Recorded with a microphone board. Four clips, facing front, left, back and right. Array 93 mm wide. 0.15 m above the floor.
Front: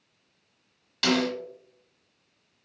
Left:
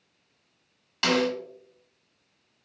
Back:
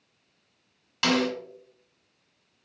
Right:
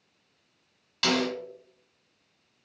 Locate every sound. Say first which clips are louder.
1.0 s a snare drum: left 3 dB, even; 150° left, 1.6 m